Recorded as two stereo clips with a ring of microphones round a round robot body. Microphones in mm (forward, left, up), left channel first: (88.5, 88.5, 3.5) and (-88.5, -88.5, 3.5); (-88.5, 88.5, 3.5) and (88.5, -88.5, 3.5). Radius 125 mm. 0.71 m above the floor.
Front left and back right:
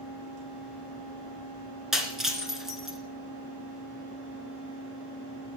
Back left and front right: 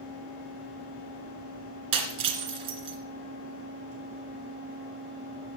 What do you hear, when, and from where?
1.9 s breaking glass: 45° right, 2 m